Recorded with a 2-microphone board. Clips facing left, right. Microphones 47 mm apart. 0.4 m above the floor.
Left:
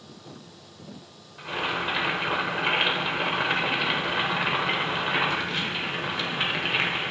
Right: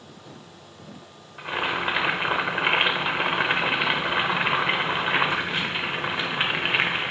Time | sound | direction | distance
1.4 | boiling | 30° right (ahead or behind) | 1.3 m